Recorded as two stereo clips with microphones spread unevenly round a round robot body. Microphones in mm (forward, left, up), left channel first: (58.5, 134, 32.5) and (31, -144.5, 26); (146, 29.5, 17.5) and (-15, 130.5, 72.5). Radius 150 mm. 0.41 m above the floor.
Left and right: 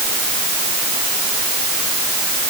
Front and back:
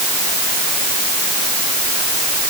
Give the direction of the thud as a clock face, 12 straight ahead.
I don't hear a thud.